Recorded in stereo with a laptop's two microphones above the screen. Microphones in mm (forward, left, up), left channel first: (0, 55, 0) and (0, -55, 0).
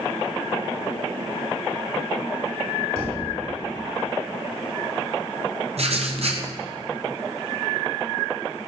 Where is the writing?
60° right (ahead or behind), 0.7 m.